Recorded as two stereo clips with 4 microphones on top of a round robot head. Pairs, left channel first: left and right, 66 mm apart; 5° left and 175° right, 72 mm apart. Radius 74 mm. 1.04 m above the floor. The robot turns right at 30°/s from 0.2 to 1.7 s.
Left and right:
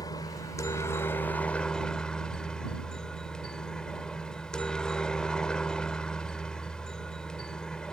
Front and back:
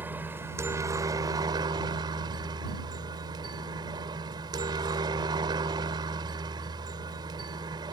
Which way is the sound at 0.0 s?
125° left.